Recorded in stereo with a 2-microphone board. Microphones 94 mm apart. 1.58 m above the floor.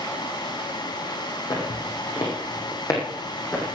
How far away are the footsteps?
About 5 m.